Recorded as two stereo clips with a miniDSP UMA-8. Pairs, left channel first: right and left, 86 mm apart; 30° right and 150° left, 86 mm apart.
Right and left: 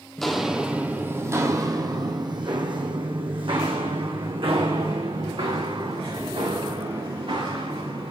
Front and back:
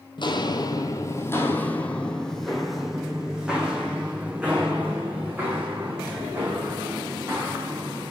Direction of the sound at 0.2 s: 5° right.